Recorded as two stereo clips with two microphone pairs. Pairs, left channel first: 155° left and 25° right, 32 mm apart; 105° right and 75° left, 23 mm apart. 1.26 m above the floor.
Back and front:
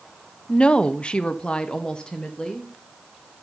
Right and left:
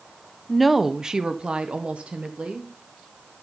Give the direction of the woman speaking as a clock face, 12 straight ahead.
6 o'clock.